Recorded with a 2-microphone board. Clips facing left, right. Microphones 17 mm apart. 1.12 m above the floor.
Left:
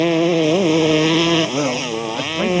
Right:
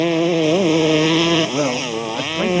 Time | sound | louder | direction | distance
0.0 | a motorcycle | left 1 dB | 10° left (ahead or behind) | ?
1.5 | a man speaking | even | 25° right (ahead or behind) | ?